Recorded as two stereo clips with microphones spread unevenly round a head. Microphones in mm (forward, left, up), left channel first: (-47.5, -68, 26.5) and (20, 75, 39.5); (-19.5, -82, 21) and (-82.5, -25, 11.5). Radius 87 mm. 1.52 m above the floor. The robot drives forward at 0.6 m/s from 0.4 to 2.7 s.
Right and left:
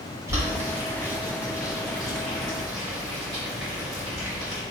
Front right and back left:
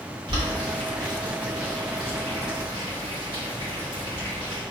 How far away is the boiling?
About 1.7 m.